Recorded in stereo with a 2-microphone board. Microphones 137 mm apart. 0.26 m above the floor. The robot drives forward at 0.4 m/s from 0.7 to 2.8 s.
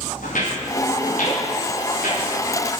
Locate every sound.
0.2 s footsteps: 75° left (ahead or behind), 7.5 m; by 2.3 s 80° left, 7 m